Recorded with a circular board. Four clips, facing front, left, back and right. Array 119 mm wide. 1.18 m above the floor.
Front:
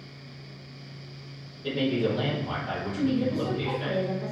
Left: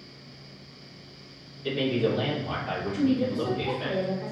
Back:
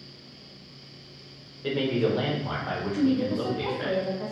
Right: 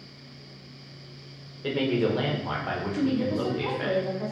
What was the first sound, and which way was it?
A man speaking, 115° right.